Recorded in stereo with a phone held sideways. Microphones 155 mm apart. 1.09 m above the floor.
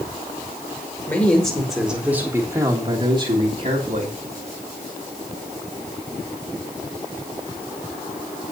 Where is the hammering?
No hammering in this recording.